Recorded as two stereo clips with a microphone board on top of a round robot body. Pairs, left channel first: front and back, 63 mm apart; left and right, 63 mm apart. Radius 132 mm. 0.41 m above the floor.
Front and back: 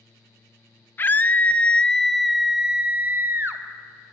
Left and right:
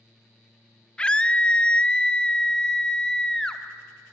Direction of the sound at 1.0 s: 25° left.